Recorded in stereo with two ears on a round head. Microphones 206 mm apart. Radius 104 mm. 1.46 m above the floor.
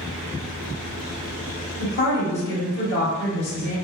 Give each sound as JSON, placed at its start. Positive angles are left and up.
{"t": 1.8, "sound": "a woman speaking", "side_deg": 50, "distance_m": 2.0}